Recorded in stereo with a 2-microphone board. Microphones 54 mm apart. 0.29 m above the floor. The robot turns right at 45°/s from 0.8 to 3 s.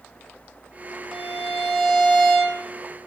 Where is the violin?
170° left, 4.5 m; by 2.6 s 125° right, 4.5 m.